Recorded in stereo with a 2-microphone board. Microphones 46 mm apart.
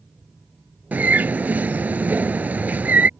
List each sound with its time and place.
0.9 s a bird: 40° right (ahead or behind)